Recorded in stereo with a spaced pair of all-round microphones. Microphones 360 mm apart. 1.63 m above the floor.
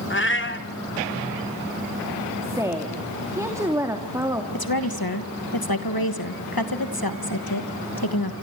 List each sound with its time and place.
0.1 s a cat meowing: 35° left (ahead or behind), 1.7 m
2.4 s a woman speaking: 10° right (ahead or behind), 2.5 m
4.5 s a woman speaking: 75° left (ahead or behind), 2.5 m